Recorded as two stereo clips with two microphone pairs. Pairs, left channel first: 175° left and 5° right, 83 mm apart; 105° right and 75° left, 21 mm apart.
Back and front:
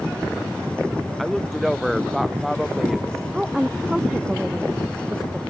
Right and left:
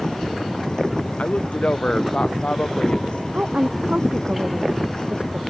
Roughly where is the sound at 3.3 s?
Left.